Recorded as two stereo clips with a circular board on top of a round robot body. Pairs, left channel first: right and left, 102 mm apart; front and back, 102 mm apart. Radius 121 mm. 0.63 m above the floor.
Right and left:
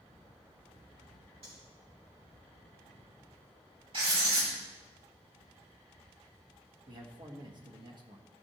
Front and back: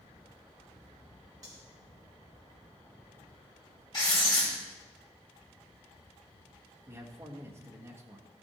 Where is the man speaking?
120° left, 1.6 m.